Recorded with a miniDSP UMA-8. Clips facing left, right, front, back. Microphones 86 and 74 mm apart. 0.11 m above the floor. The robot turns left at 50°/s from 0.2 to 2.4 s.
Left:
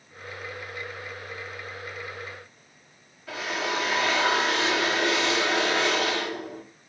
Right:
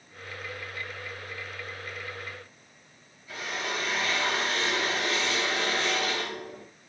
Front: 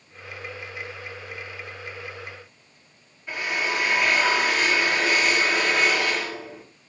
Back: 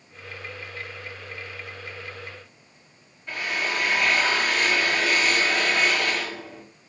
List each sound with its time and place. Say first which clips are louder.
3.3 s a drill: left 4 dB, front 1 dB; 85° left, 6 m